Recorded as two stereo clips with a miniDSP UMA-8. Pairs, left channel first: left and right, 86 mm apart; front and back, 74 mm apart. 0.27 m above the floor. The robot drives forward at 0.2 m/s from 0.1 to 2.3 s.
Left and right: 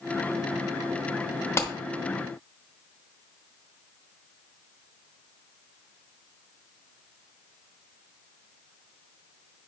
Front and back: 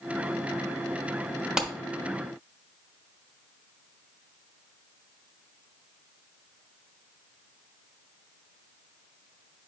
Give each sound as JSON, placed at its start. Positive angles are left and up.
{"t": 1.6, "sound": "a clap", "azimuth_deg": 105, "distance_m": 1.2}